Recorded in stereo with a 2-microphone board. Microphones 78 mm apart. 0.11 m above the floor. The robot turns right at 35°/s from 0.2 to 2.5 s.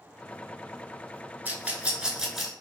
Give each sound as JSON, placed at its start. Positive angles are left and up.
{"t": 1.4, "sound": "a rattle", "side_deg": -20, "distance_m": 0.9}